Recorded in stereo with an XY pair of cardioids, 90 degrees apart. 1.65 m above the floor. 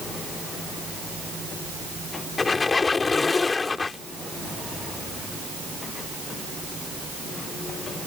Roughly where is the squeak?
Ahead left.